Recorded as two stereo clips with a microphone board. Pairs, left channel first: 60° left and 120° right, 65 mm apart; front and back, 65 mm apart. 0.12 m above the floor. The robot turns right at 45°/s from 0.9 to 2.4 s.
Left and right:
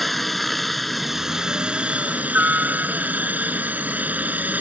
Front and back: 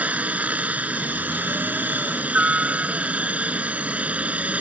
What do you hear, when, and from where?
0.0 s a helicopter: 150° left; by 4.6 s 145° right